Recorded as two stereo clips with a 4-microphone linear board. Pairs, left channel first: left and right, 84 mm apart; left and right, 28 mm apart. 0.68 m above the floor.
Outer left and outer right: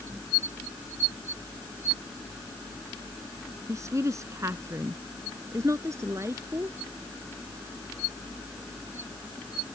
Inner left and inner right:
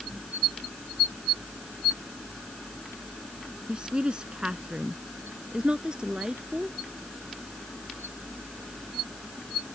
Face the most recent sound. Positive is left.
turn(degrees=-35)  # may be behind; listen again after turning